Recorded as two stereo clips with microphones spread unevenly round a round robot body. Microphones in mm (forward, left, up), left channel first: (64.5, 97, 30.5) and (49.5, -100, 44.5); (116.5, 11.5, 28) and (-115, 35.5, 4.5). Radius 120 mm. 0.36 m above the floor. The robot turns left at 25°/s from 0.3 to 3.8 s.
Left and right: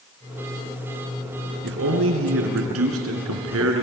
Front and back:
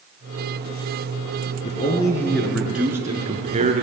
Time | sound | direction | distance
1.6 | a man speaking | 70° right | 4 m